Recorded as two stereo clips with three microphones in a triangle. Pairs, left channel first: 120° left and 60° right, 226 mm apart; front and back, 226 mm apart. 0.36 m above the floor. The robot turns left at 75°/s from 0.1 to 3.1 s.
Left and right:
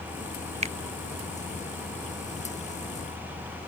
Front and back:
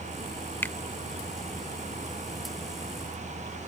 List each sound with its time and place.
0.6 s a finger snap: 70° right; by 0.8 s 80° right